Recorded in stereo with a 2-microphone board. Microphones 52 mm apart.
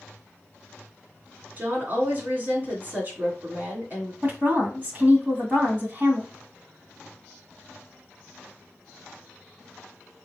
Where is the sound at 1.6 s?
40° right (ahead or behind), 2.5 m.